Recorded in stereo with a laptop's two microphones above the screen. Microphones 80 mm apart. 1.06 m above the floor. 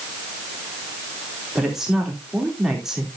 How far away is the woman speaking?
About 3 m.